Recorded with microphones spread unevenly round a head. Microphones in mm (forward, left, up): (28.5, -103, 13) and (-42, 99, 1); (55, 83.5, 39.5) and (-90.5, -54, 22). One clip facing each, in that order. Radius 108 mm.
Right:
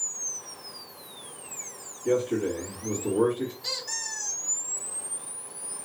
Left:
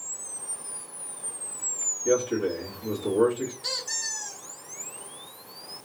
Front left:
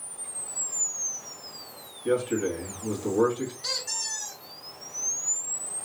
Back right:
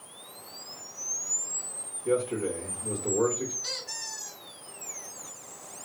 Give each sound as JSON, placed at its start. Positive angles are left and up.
{"t": 2.0, "sound": "a man speaking", "azimuth_deg": 25, "distance_m": 2.0}
{"t": 3.6, "sound": "a squeak", "azimuth_deg": 40, "distance_m": 2.0}